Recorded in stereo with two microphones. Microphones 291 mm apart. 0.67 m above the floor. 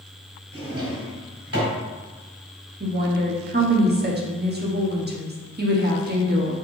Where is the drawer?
50° right (ahead or behind), 1.5 m.